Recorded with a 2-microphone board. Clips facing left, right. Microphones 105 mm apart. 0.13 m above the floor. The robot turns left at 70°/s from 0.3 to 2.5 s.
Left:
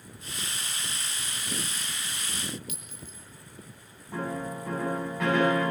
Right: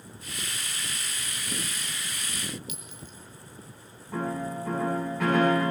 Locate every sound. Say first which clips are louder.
2.7 s a clink: right 1 dB; 50° left (ahead or behind), 2 m
4.1 s a piano: right 2 dB; centre (ahead or behind), 10 m